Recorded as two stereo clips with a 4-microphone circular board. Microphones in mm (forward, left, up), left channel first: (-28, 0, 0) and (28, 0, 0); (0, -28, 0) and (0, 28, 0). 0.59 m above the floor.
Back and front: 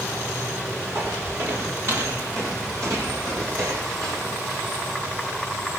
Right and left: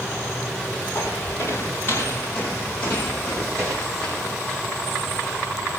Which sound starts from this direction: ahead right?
Footsteps, at 0.9 s.